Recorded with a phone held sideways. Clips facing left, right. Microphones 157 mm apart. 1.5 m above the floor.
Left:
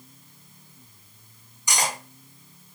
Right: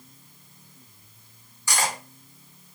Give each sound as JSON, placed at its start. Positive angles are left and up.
{"t": 1.7, "sound": "cutlery clinking", "side_deg": 20, "distance_m": 1.0}